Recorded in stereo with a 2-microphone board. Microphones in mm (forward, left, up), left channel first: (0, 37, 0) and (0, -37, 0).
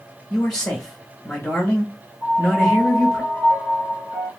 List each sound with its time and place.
0.3 s a man speaking: 10° left (ahead or behind), 1.2 m
2.2 s a piano: 20° left (ahead or behind), 2.5 m